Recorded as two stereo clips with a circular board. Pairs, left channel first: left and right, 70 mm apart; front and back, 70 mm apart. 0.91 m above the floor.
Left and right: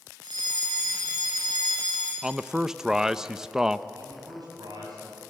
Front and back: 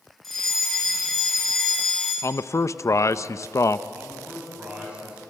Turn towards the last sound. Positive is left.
turn(degrees=-110)